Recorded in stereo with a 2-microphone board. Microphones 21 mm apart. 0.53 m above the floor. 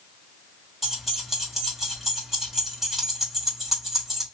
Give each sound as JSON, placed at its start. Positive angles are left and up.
{"t": 0.8, "sound": "keys jangling", "side_deg": -10, "distance_m": 2.0}